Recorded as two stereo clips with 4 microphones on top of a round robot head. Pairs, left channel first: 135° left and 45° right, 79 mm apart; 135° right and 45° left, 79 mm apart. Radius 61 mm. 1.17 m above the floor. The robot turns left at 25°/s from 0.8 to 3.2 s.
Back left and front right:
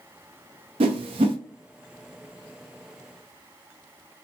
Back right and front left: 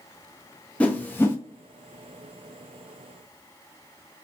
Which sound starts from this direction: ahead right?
A whoosh, at 0.8 s.